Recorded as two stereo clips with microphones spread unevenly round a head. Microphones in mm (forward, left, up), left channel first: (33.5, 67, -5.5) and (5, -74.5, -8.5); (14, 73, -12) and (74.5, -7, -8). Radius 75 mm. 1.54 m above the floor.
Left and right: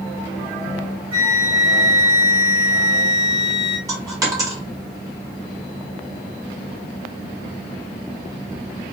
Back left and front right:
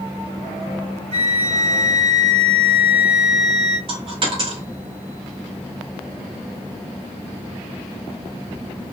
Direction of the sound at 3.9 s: 35° right.